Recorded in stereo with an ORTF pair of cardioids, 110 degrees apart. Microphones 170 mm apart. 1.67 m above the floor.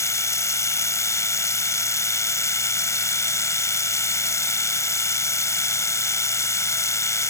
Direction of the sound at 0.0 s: 15° left.